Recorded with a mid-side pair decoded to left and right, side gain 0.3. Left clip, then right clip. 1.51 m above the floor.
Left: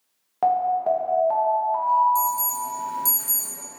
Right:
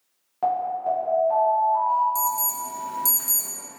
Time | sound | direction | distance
0.4 | an alarm | 65° left | 0.7 m
2.1 | an alarm | 25° right | 0.7 m